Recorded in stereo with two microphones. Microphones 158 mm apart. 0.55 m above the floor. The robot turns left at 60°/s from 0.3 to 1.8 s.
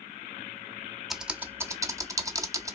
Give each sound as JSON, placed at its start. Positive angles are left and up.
{"t": 1.1, "sound": "typing on a keyboard", "side_deg": 0, "distance_m": 0.6}